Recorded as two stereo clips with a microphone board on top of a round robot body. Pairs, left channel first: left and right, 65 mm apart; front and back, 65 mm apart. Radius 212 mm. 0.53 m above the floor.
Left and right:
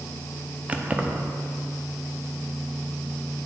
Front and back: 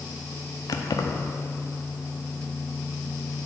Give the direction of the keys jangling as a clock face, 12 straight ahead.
1 o'clock.